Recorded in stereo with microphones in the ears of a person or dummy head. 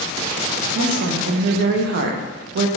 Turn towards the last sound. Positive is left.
turn(degrees=-65)  # may be behind; listen again after turning